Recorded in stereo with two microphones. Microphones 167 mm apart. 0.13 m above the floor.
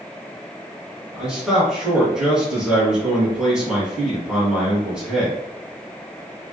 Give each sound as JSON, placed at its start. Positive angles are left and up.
{"t": 1.1, "sound": "a man speaking", "side_deg": -5, "distance_m": 1.7}